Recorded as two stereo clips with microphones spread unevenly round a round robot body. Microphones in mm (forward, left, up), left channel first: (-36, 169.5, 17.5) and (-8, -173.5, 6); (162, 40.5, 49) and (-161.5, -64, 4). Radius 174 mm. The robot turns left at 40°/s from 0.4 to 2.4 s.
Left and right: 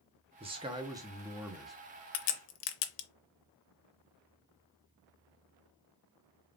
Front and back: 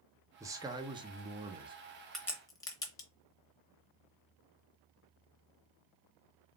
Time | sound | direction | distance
0.4 | a man speaking | 120° right | 0.7 m
2.1 | a crack | 105° left | 0.7 m